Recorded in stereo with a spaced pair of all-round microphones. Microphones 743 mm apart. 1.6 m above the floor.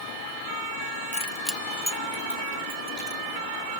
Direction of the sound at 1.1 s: 10° left (ahead or behind).